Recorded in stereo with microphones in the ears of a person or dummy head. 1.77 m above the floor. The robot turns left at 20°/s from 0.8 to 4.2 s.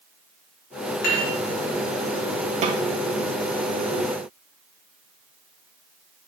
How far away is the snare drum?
About 0.6 m.